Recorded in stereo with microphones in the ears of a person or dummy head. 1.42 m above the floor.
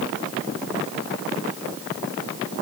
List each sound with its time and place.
Only background noise.